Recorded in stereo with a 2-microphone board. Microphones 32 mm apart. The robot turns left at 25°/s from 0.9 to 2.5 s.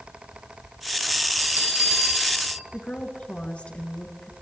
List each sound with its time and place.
1.4 s a bell: 65° right (ahead or behind), 2.5 m; by 2.6 s 55° right (ahead or behind), 2.5 m
2.7 s a woman speaking: 50° left (ahead or behind), 2 m